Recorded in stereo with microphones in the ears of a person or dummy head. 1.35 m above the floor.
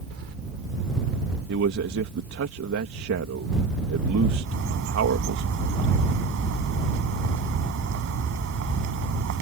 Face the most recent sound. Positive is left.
turn(degrees=-65)  # may be behind; listen again after turning